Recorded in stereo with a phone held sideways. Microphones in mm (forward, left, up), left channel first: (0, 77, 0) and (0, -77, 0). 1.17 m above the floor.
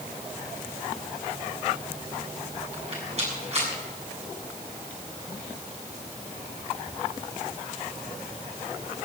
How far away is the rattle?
About 7 m.